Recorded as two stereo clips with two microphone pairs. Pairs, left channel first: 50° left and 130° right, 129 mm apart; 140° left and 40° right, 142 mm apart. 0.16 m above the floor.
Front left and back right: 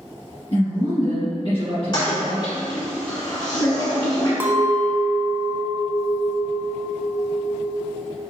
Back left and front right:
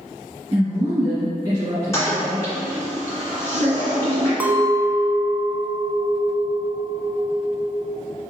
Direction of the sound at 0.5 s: 20° left.